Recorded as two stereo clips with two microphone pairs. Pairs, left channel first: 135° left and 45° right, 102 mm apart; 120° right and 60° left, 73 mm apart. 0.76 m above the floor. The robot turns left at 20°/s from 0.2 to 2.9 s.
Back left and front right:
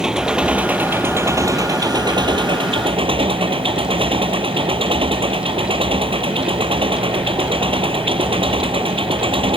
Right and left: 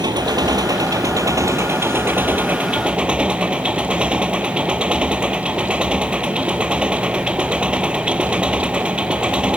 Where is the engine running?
40° left; by 9.6 s 15° right.